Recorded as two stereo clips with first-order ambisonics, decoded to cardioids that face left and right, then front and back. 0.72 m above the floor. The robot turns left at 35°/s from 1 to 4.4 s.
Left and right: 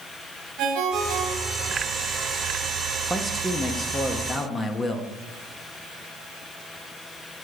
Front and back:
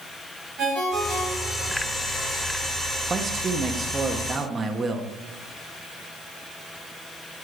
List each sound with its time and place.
0.6 s a ringtone: 120° right, 3.5 m; by 1.7 s 145° right, 3.5 m
3.1 s a man speaking: straight behind, 0.9 m; by 5.1 s 135° left, 0.9 m